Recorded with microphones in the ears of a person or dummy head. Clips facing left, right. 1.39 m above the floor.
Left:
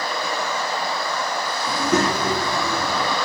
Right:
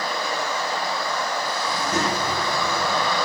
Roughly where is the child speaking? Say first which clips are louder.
Left 6 dB; left.